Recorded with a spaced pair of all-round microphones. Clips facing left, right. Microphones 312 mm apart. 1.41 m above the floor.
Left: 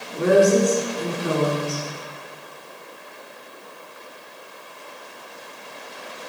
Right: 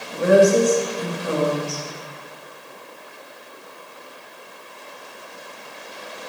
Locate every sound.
0.2 s a woman speaking: 70° left (ahead or behind), 4 m